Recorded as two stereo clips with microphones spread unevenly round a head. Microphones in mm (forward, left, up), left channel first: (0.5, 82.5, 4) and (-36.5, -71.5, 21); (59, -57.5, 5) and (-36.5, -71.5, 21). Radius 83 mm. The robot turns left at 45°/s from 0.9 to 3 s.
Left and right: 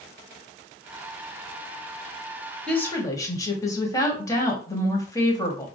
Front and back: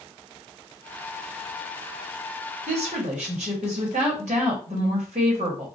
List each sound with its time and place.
2.7 s a woman speaking: 160° left, 1.2 m; by 5.7 s 145° left, 1.2 m